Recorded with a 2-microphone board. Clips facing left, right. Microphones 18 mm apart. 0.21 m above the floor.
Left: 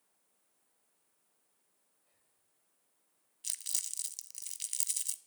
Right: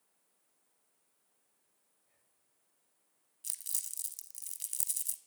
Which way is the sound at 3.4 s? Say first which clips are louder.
Left 4 dB; 30° left (ahead or behind).